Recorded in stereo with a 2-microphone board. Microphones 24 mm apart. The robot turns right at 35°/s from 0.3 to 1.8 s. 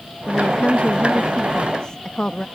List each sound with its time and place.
0.3 s a woman speaking: 95° left; by 2.5 s 145° left